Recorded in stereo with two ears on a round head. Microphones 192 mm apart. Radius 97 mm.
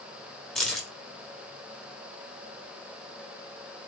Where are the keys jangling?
Centre (ahead or behind), 1.1 m.